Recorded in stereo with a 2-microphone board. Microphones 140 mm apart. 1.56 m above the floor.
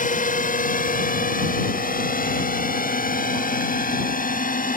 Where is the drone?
70° left (ahead or behind); by 4.8 s 75° left (ahead or behind).